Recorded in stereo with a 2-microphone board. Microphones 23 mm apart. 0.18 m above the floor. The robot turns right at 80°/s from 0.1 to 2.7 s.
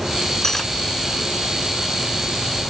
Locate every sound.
0.4 s cutlery clinking: 25° left (ahead or behind); by 0.7 s 10° left (ahead or behind)